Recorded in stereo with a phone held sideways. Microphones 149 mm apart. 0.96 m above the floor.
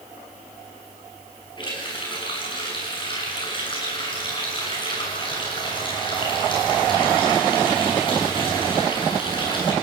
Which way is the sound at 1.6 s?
35° left (ahead or behind).